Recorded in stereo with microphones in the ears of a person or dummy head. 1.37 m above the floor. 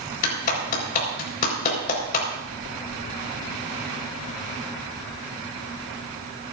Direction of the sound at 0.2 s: 45° left (ahead or behind).